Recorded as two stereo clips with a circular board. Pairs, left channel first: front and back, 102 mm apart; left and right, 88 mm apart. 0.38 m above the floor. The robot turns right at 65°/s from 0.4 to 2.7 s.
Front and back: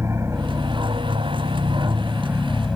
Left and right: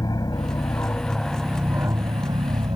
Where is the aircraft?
120° left; by 2.8 s 90° right.